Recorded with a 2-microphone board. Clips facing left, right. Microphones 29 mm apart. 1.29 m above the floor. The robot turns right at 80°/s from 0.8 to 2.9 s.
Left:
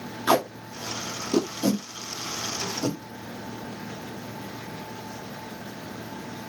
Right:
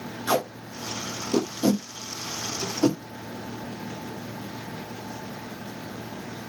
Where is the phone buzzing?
No phone buzzing in this recording.